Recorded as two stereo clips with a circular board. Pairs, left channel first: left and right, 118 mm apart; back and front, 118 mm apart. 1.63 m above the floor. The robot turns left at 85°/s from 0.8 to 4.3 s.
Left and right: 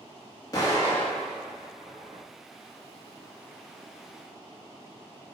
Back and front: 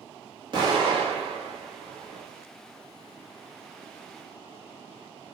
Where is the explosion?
40° left, 1.5 m; by 2.2 s 80° right, 1.5 m.